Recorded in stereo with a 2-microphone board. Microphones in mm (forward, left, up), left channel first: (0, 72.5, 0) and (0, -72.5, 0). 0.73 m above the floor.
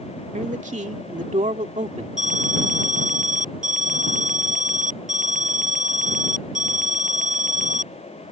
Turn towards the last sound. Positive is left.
turn(degrees=-65)  # may be behind; listen again after turning